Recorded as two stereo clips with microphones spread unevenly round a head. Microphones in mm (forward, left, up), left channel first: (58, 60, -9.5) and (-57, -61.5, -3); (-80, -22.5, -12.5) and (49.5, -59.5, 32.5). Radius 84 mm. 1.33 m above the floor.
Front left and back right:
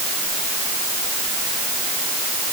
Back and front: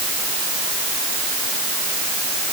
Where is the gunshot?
I don't hear a gunshot.